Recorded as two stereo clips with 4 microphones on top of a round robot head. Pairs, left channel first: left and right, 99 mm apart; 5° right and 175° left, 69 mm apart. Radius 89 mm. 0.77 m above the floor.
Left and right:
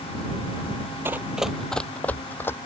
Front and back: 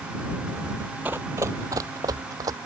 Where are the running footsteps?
130° right; by 2.5 s 155° left.